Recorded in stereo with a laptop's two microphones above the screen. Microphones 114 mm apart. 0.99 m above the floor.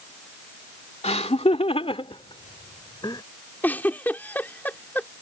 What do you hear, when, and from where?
1.0 s laughter: 80° left; by 3.2 s 40° left (ahead or behind)
3.6 s a giggle: 20° left (ahead or behind)